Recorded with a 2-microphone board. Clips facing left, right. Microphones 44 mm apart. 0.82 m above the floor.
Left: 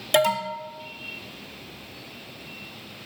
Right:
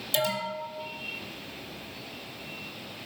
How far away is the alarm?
About 0.7 m.